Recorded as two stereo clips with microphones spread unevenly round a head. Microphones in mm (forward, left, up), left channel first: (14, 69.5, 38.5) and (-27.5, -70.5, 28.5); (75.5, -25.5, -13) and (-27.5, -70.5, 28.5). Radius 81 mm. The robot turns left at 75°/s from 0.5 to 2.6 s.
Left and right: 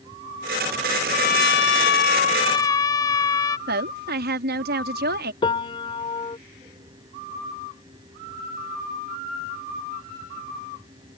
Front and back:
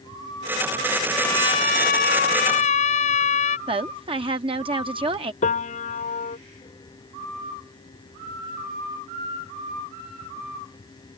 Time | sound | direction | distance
1.1 | a trumpet | 120° left | ?
3.7 | a woman speaking | 115° right | ?
5.4 | a piano | 15° left | ?